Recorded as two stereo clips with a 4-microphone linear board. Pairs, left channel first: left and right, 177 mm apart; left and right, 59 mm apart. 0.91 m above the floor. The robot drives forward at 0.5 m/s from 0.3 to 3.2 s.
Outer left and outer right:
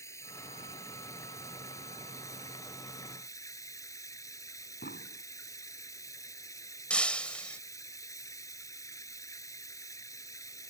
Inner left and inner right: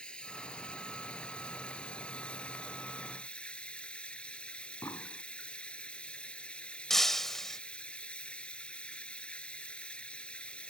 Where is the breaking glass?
5° left (ahead or behind).